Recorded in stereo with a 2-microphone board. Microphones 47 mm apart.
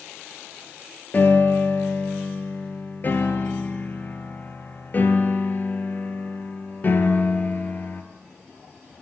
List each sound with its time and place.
1.1 s a piano: 40° left (ahead or behind), 2 m